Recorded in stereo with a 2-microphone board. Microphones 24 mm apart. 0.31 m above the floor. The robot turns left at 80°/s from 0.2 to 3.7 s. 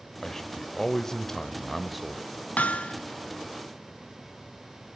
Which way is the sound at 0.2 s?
15° left (ahead or behind).